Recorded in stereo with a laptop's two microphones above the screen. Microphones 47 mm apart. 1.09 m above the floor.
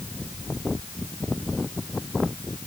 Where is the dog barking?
No dog barking in this recording.